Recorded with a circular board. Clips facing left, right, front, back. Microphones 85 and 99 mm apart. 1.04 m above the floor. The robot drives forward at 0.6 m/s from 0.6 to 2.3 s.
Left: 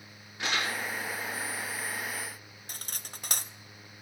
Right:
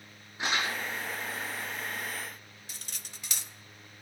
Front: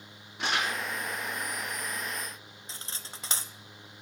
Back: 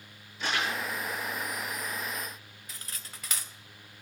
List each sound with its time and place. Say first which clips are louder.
0.4 s crumpling: right 1 dB, front 1 dB; 20° right, 6.5 m
2.7 s cutlery clinking: left 5 dB, front 2 dB; 55° left, 0.5 m